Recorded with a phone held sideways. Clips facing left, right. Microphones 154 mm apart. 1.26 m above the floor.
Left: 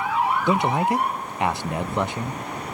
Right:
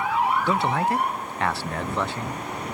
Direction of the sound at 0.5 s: 15° left (ahead or behind).